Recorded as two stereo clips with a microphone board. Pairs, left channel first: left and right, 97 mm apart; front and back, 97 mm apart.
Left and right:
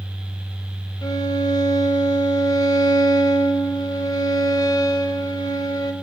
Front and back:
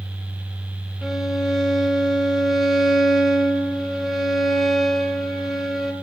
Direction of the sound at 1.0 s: 95° left.